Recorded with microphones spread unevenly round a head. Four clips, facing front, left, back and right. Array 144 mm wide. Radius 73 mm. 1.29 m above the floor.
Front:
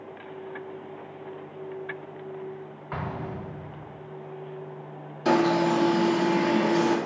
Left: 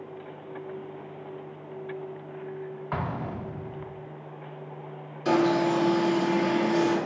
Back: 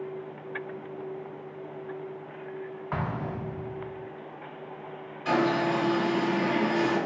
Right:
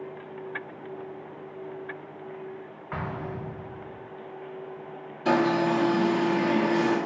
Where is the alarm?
5° right, 1.7 m.